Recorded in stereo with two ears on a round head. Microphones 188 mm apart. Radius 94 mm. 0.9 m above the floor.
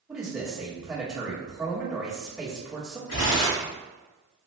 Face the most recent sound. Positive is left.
turn(degrees=70)  # may be behind; listen again after turning